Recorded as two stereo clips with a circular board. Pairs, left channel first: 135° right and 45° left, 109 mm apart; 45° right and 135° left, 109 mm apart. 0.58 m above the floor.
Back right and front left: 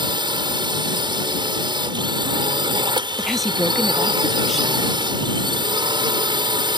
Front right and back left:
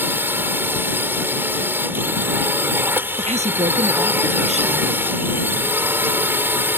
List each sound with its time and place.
0.0 s a drone: 70° left
3.2 s a woman speaking: 135° left